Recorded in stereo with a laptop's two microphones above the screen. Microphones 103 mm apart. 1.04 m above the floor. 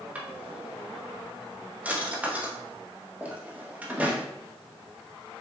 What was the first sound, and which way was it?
A drawer, 15° right (ahead or behind).